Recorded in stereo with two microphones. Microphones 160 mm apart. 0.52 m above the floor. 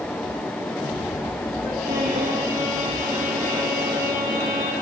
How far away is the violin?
About 3.5 m.